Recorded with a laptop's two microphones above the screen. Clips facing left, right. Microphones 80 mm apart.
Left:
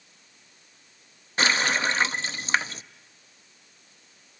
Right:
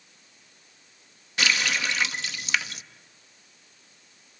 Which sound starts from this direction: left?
A running tap, at 1.4 s.